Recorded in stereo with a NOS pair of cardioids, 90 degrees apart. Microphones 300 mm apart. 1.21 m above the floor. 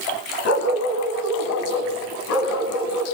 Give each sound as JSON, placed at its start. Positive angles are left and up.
{"t": 0.5, "sound": "a dog barking", "azimuth_deg": 55, "distance_m": 4.0}